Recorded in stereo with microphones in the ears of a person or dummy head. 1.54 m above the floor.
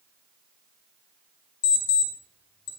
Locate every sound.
1.6 s an alarm clock: 25° left (ahead or behind), 1.5 m